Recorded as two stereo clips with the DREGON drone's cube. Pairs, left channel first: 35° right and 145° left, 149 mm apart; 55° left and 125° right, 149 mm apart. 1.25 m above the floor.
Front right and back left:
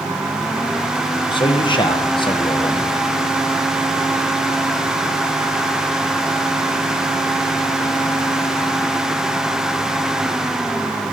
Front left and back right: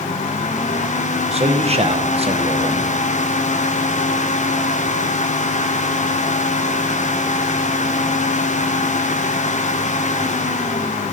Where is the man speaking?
85° right, 1.1 m.